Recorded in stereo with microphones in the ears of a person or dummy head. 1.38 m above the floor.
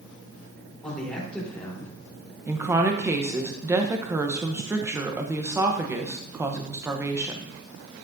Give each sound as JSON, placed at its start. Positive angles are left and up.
{"t": 0.8, "sound": "a man speaking", "side_deg": 10, "distance_m": 3.5}
{"t": 2.5, "sound": "a woman speaking", "side_deg": -20, "distance_m": 0.8}